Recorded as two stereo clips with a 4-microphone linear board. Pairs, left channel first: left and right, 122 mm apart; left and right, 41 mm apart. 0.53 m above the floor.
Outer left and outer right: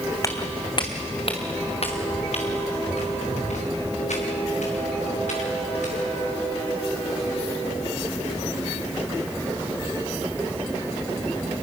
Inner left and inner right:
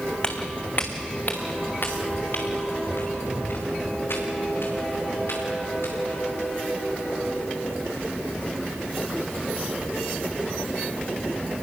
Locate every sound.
0.2 s footsteps: 25° left (ahead or behind), 1.9 m; by 6.3 s 75° left (ahead or behind), 8 m